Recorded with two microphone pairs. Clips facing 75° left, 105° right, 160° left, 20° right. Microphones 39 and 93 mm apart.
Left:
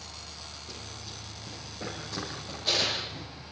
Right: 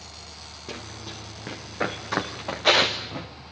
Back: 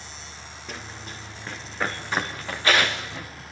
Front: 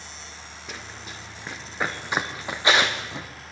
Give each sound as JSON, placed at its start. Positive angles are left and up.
{"t": 0.7, "sound": "running footsteps", "azimuth_deg": -110, "distance_m": 4.0}